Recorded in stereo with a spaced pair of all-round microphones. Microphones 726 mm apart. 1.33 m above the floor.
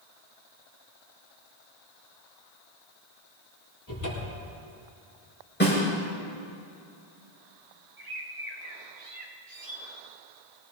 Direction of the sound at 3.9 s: 25° left (ahead or behind).